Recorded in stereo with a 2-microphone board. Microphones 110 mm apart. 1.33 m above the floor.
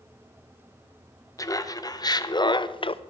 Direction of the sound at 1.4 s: 30° left (ahead or behind).